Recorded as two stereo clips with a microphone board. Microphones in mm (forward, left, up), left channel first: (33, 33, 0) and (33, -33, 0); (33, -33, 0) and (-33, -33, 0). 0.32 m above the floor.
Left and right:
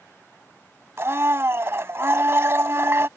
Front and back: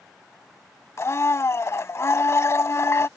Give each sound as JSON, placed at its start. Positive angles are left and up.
{"t": 1.0, "sound": "a blender", "azimuth_deg": -45}